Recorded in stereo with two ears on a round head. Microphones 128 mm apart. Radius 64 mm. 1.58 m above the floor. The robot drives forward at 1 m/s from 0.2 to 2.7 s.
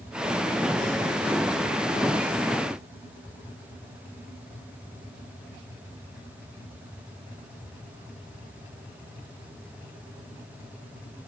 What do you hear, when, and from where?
Only background noise.